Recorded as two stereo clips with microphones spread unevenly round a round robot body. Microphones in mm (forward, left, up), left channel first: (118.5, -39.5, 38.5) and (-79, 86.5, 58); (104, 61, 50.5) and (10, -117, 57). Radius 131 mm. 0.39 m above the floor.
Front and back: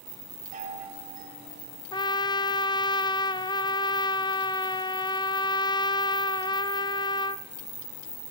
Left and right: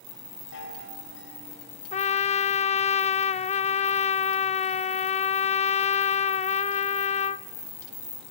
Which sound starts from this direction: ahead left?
A trumpet, at 1.9 s.